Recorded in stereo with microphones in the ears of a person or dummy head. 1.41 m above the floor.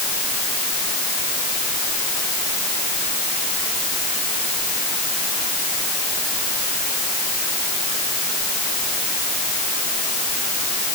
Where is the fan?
I don't hear a fan.